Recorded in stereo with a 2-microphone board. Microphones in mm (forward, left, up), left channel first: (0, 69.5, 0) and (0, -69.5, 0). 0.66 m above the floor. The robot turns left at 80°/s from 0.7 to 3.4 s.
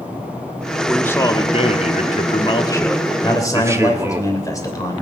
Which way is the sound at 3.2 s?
35° left (ahead or behind).